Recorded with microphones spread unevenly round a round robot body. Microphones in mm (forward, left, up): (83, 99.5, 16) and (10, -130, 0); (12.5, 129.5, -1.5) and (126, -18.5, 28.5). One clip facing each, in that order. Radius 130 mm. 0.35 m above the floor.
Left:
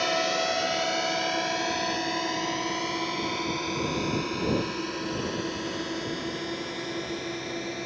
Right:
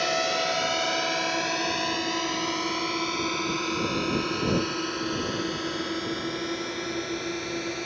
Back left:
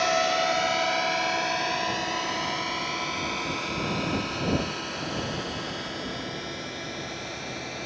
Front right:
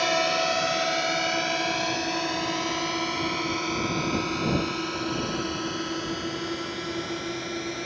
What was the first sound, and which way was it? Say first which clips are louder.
A drone: even, even; 20° right.